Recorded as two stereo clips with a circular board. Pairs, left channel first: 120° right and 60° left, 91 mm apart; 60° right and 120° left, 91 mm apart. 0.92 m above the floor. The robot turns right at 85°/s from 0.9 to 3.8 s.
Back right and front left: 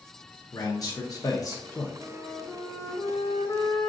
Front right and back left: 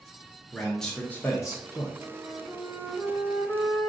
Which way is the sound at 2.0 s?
110° left.